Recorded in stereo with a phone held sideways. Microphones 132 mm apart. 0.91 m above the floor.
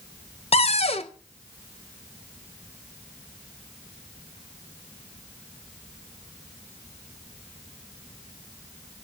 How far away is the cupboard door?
About 0.6 m.